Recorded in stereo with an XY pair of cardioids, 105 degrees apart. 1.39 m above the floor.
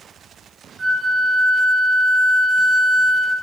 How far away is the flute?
About 2.5 m.